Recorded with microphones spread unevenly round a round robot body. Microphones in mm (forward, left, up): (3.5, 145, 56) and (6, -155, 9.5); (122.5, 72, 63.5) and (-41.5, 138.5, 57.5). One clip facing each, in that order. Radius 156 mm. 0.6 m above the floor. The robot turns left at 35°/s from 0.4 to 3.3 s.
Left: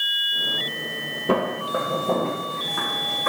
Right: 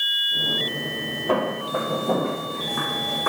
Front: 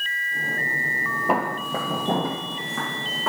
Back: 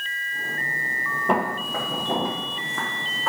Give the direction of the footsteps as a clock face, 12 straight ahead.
10 o'clock.